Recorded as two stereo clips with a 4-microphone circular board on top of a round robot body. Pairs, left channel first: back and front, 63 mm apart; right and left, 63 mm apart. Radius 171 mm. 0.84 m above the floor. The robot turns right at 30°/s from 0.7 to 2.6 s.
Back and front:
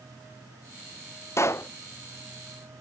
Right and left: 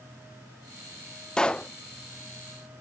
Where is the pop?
165° right; by 1.7 s 155° right.